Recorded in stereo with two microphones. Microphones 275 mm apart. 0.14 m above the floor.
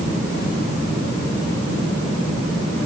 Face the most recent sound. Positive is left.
No sound to turn to.